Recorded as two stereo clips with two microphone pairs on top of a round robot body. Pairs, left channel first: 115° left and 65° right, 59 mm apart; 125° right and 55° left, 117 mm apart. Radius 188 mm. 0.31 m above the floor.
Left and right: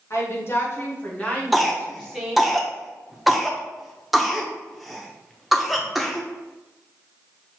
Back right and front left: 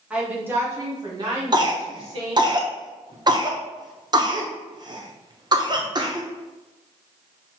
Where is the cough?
25° left, 1.1 m.